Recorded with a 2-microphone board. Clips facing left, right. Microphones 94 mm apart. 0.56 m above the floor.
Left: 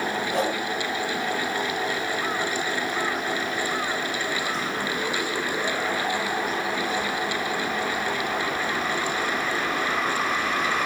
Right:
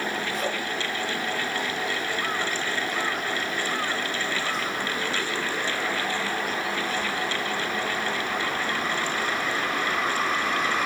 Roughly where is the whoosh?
Left.